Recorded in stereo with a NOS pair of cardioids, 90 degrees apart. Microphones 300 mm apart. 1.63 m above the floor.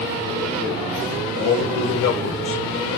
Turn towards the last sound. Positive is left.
turn(degrees=65)